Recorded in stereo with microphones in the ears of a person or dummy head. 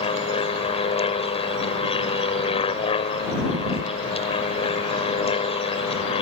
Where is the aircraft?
30° left (ahead or behind).